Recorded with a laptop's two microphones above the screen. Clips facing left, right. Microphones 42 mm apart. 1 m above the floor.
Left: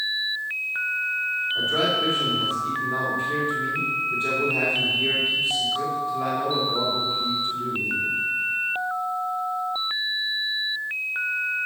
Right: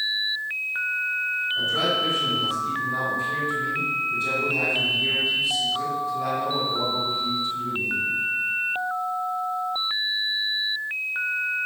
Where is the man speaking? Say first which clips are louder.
Left 2 dB; 40° left (ahead or behind), 3 m.